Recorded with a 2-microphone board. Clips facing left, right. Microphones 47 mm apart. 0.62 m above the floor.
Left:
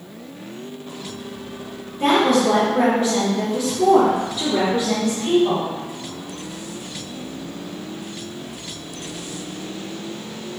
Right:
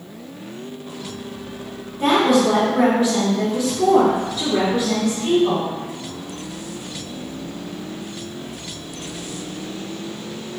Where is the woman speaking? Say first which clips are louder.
Right 1 dB; 40° left (ahead or behind), 1.6 m; by 5.7 s 5° left (ahead or behind), 1.7 m.